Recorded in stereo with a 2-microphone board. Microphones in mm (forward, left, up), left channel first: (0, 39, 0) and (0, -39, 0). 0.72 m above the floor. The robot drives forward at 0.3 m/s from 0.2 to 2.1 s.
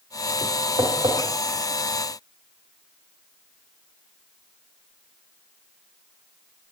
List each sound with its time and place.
0.8 s tapping: 65° right (ahead or behind), 2 m